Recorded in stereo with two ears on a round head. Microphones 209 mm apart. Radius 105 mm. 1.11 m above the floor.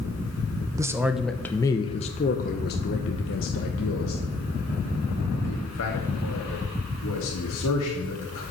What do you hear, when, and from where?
0.8 s a man speaking: 15° right (ahead or behind), 1.0 m; by 8.4 s 80° left, 4 m